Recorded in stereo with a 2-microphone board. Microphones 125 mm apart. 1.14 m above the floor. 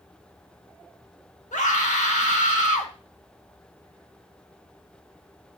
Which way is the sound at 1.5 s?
80° left.